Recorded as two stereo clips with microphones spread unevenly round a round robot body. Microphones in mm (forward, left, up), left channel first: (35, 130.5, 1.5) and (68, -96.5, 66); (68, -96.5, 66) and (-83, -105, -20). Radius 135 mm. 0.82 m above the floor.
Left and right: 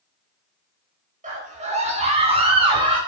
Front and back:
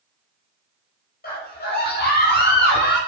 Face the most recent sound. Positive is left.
turn(degrees=-10)